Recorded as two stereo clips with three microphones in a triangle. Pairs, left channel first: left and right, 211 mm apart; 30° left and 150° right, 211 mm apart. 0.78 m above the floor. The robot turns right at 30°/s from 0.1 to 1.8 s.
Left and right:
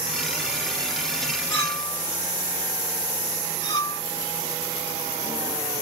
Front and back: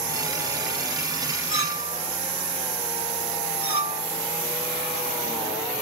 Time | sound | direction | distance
1.5 | a clink | 10° left | 1.7 m